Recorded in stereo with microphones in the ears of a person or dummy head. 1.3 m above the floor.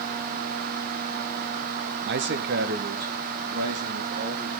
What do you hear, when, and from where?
2.0 s a man speaking: 50° right (ahead or behind), 0.9 m; by 4.6 s 55° right (ahead or behind), 4 m